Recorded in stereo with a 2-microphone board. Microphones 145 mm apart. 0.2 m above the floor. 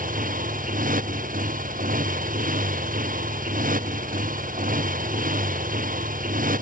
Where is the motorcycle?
80° right.